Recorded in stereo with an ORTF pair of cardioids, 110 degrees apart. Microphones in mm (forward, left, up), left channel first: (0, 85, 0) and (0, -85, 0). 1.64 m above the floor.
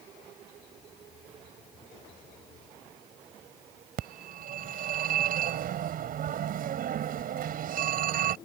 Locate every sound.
4.0 s a phone ringing: 60° right